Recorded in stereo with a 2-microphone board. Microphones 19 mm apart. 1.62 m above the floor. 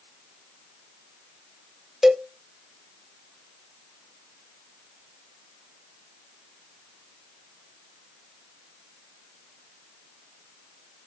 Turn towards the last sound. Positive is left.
turn(degrees=-25)  # may be behind; listen again after turning